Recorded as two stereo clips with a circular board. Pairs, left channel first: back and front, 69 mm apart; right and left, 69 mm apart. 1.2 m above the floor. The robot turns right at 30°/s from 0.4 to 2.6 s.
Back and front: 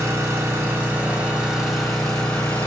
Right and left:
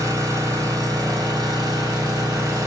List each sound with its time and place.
0.0 s an engine running: 50° left, 1.3 m; by 2.7 s 115° left, 1.3 m